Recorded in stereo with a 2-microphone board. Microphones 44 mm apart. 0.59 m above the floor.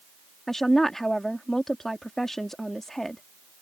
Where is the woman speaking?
10° left (ahead or behind).